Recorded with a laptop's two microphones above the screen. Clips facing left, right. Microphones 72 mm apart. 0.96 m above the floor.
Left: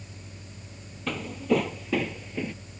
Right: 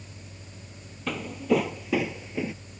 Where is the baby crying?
I don't hear a baby crying.